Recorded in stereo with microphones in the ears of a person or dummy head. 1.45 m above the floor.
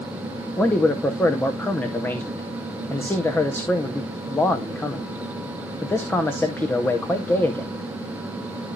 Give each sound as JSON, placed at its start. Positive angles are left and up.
{"t": 0.6, "sound": "a man speaking", "side_deg": 10, "distance_m": 0.8}